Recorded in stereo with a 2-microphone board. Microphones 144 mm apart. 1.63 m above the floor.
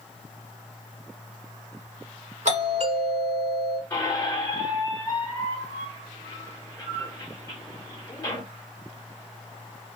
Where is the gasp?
No gasp in this recording.